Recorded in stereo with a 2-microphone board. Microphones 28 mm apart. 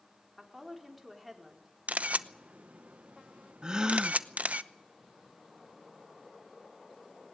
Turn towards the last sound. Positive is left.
turn(degrees=-30)  # may be behind; listen again after turning